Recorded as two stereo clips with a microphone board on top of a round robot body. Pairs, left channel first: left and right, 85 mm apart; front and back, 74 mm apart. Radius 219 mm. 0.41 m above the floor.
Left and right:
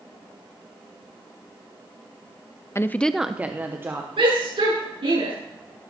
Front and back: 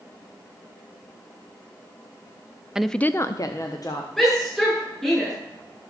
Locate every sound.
2.8 s a woman speaking: 105° left, 0.9 m; by 4.1 s 30° right, 1.9 m
4.2 s a shout: 85° right, 8 m